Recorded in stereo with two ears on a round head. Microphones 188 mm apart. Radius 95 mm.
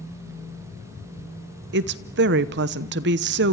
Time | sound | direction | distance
1.7 | a woman speaking | 55° right (ahead or behind) | 1.0 m